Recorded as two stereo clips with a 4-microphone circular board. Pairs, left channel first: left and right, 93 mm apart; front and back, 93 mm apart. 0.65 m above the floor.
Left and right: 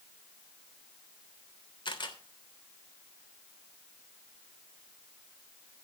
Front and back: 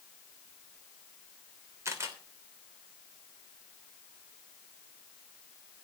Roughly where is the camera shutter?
Behind left.